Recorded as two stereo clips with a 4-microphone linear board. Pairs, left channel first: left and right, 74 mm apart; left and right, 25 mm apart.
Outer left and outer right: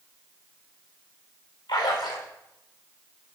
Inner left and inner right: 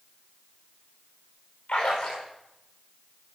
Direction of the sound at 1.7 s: 65° left (ahead or behind).